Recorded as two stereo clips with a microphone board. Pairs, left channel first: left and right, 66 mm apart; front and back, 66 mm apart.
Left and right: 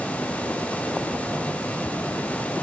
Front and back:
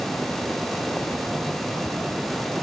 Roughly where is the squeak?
No squeak in this recording.